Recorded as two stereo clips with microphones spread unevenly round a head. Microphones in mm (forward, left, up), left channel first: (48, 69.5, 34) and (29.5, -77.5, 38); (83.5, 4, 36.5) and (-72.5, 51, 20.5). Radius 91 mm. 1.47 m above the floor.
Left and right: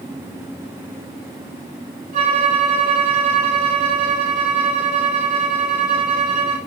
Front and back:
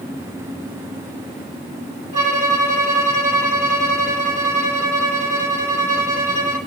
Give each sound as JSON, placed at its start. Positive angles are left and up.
{"t": 2.1, "sound": "a violin", "azimuth_deg": -145, "distance_m": 1.8}